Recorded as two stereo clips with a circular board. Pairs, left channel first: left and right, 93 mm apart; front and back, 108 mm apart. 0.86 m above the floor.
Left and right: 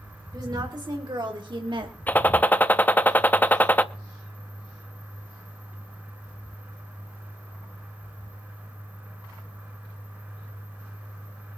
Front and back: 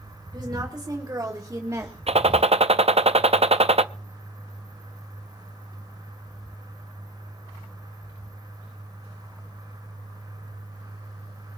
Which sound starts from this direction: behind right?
A woman speaking, at 0.3 s.